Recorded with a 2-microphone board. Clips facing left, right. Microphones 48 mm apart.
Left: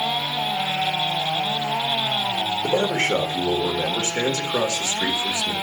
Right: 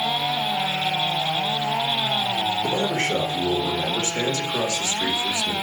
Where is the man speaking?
50° left (ahead or behind), 2 m.